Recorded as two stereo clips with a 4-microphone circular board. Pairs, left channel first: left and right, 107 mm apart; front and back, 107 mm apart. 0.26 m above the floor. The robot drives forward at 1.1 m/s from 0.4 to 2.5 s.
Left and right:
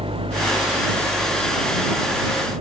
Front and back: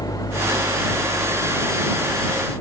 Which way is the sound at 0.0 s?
55° right.